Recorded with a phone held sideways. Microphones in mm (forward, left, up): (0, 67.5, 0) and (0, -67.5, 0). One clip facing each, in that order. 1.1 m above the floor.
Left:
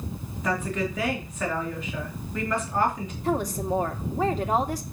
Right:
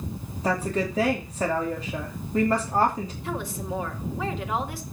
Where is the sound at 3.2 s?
40° left (ahead or behind), 2 m.